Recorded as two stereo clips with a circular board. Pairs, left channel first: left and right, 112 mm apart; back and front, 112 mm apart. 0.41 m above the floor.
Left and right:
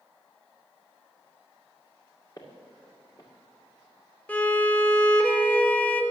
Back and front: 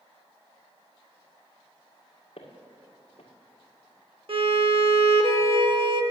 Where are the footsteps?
150° left, 2 m.